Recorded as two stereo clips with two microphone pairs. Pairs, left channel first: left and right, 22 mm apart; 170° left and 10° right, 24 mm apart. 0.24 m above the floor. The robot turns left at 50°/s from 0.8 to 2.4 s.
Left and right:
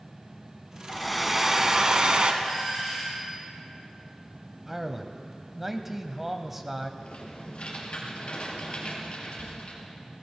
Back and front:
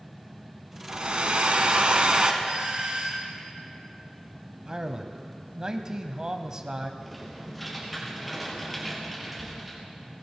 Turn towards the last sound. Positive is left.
turn(degrees=75)